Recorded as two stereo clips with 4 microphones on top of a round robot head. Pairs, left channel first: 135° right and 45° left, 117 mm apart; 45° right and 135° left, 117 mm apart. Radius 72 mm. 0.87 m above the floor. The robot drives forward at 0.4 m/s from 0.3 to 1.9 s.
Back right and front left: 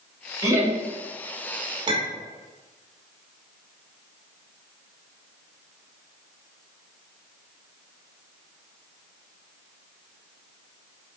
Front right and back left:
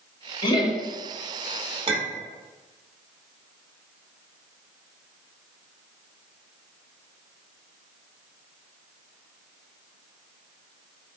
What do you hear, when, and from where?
0.4 s laughter: 10° right, 0.9 m; by 0.8 s 15° right, 0.8 m
1.9 s a clink: 95° left, 0.7 m